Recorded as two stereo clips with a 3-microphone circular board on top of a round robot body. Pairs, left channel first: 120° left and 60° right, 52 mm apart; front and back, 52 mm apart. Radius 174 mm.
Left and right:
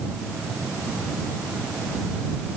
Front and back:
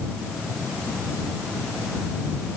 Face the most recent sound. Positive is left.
No sound to turn to.